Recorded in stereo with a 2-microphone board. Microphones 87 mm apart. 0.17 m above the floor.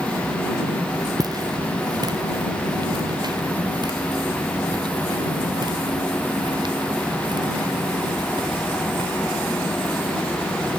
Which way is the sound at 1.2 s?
45° right (ahead or behind).